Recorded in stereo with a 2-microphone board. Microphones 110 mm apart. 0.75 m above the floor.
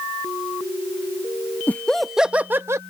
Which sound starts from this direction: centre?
Laughter, at 1.7 s.